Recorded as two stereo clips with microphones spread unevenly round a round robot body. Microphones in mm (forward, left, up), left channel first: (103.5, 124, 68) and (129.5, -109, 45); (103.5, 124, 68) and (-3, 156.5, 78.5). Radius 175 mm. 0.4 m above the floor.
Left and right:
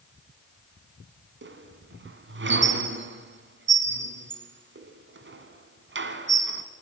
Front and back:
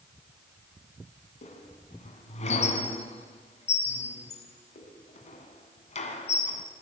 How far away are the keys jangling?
I don't hear keys jangling.